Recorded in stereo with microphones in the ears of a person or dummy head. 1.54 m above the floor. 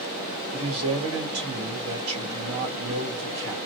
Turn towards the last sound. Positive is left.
turn(degrees=-80)